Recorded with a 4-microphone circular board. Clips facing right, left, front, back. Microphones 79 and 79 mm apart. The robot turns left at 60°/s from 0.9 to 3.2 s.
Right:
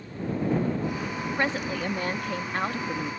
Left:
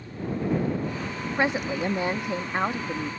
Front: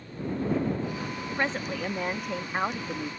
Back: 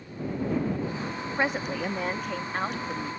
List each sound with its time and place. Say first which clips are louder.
1.4 s a woman speaking: left 4 dB, back 2 dB; 130° left; by 3.1 s 25° left